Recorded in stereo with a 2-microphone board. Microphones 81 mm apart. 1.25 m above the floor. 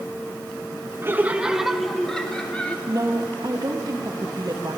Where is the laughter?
30° right (ahead or behind), 1.3 m; by 2.8 s 15° left (ahead or behind), 2.5 m.